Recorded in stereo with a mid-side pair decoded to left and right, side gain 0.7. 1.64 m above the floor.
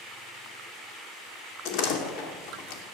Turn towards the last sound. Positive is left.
turn(degrees=65)